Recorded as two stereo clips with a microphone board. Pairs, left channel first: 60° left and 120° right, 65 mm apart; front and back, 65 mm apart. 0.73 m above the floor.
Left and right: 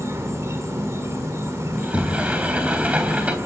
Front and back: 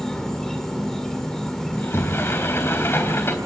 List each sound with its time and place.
0.0 s an insect: 80° right, 2.5 m
1.7 s a sliding door: 50° right, 3.5 m